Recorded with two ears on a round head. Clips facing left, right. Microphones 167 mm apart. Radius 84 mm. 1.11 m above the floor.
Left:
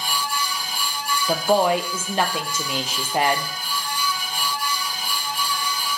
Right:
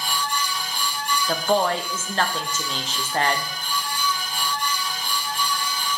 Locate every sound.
1.3 s a woman speaking: 10° left (ahead or behind), 0.6 m